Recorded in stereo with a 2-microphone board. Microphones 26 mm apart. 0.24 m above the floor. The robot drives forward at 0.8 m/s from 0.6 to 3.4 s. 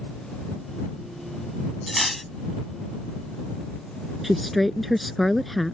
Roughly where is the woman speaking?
Centre.